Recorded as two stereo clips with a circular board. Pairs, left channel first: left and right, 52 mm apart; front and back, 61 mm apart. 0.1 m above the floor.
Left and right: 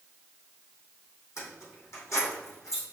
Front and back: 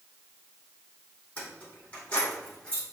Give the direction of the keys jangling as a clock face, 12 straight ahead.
10 o'clock.